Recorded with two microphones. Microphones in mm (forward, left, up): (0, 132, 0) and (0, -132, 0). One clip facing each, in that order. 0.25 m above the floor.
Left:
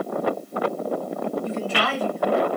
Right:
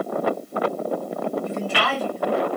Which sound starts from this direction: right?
A woman speaking, at 1.4 s.